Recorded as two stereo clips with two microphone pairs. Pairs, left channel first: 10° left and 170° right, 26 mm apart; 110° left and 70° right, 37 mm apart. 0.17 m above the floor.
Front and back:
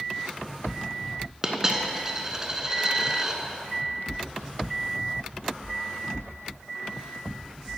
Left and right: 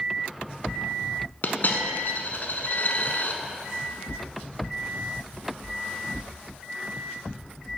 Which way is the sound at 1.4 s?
120° left.